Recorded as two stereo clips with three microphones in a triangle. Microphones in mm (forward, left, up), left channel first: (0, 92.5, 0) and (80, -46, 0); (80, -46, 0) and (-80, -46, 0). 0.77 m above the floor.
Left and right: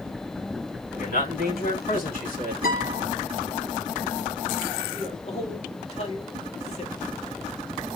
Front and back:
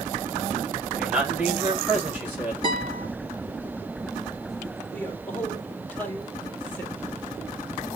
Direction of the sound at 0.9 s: 100° left.